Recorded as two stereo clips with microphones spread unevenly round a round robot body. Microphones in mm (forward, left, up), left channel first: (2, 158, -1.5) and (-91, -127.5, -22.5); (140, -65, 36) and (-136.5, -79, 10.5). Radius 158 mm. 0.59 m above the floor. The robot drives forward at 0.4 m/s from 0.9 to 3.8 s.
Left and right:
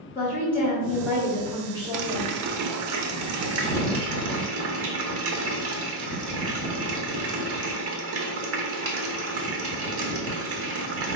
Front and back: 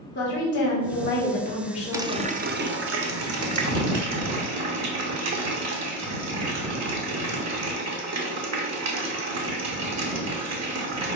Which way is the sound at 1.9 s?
100° right.